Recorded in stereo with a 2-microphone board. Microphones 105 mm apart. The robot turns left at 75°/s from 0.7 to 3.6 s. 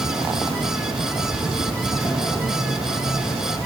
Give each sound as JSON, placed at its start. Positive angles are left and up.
{"t": 0.0, "sound": "an insect", "azimuth_deg": -115, "distance_m": 3.5}